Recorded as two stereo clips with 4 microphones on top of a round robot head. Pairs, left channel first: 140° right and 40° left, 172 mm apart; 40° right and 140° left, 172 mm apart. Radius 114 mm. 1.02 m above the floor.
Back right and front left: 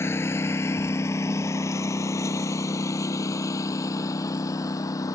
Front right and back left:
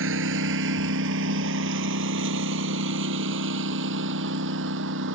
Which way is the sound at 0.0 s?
145° left.